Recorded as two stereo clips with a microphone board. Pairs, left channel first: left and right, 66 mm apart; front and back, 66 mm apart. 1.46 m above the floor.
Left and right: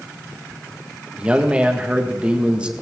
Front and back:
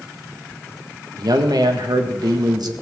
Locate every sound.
1.2 s a man speaking: 160° right, 1.8 m